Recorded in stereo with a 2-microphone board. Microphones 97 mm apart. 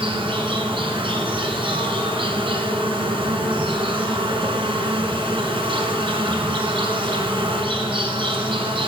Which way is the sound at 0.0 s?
70° right (ahead or behind).